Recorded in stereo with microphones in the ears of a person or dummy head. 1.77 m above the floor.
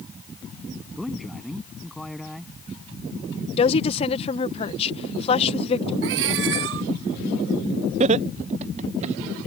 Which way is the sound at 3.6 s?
35° left (ahead or behind).